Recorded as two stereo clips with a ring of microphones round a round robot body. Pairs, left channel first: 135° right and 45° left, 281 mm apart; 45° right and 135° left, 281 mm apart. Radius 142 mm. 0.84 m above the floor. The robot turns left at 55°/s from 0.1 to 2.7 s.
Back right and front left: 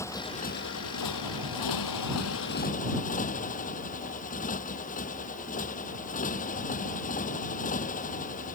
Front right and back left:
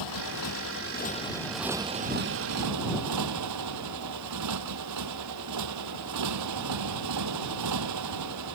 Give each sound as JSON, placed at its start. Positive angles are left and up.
{"t": 0.0, "sound": "a motorcycle", "azimuth_deg": -55}